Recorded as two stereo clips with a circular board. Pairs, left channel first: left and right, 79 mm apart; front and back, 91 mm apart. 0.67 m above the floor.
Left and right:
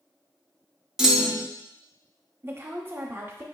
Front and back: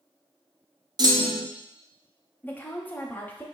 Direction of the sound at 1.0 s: 170° right.